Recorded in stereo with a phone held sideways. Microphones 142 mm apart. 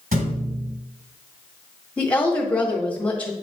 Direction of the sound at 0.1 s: 65° right (ahead or behind).